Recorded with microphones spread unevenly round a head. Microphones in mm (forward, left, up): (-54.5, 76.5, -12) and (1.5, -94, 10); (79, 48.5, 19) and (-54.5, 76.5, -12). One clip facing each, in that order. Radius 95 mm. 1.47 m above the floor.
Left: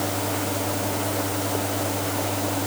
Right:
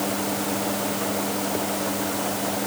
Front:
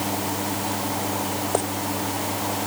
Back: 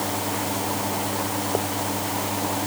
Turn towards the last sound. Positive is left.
No sound to turn to.